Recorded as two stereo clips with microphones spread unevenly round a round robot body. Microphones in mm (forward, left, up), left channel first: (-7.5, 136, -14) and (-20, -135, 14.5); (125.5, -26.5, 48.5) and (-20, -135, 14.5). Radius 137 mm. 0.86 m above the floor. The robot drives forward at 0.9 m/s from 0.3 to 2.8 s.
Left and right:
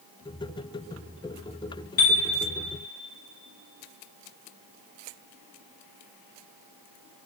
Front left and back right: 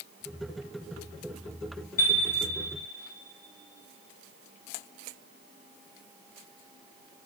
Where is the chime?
95° left, 1.4 m; by 2.2 s 105° left, 1.5 m.